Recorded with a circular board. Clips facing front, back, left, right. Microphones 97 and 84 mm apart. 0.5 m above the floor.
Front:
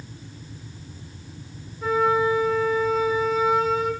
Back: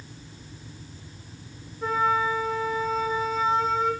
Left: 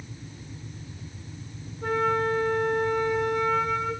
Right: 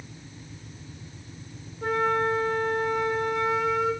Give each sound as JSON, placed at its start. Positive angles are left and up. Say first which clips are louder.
{"t": 1.8, "sound": "a flute", "louder": "front 3 dB, even", "azimuth_deg": -90, "distance_m": 6.0}